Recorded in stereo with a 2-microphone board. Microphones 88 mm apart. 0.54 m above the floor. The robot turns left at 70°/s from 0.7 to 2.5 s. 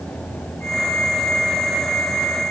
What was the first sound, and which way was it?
Only background noise.